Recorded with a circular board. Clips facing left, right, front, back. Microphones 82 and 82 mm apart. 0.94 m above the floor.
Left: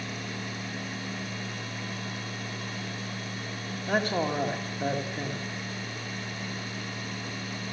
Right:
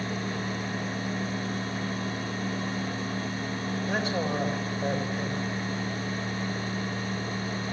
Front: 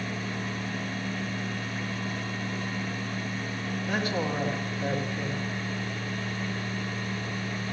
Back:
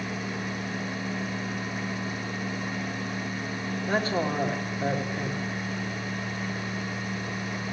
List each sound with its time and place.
3.9 s a man speaking: 125° left, 2 m